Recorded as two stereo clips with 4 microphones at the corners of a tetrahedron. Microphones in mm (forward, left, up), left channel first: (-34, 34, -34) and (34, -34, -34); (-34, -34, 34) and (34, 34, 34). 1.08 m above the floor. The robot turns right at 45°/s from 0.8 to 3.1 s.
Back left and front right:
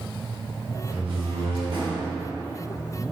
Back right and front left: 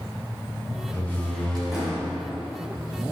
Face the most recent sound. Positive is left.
turn(degrees=20)